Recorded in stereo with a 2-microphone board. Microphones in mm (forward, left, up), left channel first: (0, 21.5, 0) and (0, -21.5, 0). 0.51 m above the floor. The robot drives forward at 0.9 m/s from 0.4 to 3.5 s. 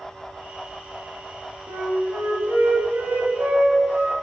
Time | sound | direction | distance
1.7 | a flute | 80° right | 1.2 m